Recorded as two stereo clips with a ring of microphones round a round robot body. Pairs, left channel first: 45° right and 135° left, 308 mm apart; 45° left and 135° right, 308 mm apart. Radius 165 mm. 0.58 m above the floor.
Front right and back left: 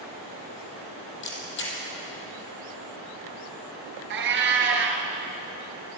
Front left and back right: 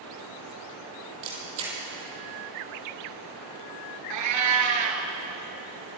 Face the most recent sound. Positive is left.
turn(degrees=-170)